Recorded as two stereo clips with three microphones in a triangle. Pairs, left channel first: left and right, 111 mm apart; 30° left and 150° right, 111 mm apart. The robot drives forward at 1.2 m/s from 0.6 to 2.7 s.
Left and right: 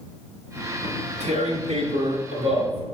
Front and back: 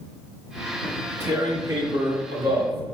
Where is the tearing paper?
70° right, 2.5 m; by 2.9 s 120° right, 3 m.